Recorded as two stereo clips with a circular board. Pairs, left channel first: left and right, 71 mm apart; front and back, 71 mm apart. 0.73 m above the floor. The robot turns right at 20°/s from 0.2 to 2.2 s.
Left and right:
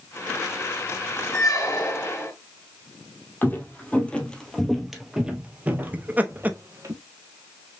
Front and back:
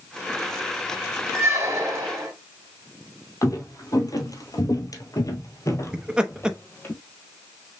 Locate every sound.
1.3 s a squeak: 125° left, 1.8 m; by 2.3 s 145° left, 1.8 m
3.4 s footsteps: 30° left, 1.5 m; by 6.9 s 55° right, 1.5 m
5.9 s laughter: 120° right, 0.8 m